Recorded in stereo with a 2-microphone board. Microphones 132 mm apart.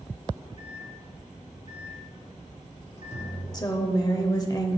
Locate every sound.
0.6 s a microwave: 60° left (ahead or behind), 2.5 m
3.5 s a woman speaking: 30° left (ahead or behind), 0.9 m